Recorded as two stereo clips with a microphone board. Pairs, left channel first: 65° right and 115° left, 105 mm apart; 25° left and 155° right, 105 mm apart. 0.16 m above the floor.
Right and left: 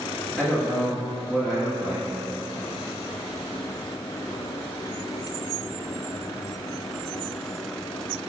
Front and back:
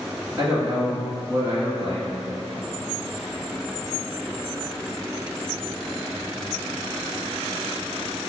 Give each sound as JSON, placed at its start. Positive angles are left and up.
{"t": 0.4, "sound": "a man speaking", "azimuth_deg": -175, "distance_m": 1.5}